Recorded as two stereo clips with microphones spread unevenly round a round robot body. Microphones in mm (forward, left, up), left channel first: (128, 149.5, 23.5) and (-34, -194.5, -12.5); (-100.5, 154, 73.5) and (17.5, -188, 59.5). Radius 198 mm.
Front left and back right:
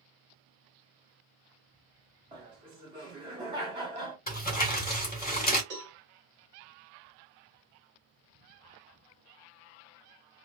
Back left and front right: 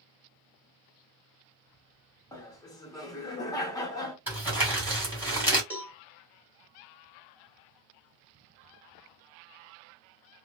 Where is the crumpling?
5° left, 1.6 m.